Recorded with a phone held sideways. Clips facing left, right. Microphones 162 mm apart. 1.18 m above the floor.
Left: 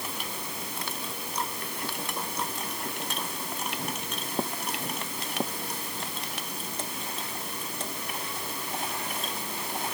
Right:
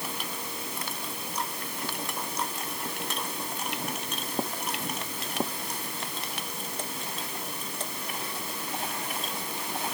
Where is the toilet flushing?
I don't hear a toilet flushing.